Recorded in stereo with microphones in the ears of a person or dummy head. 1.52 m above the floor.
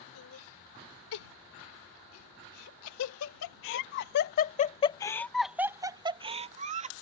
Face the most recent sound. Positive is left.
turn(degrees=-40)  # may be behind; listen again after turning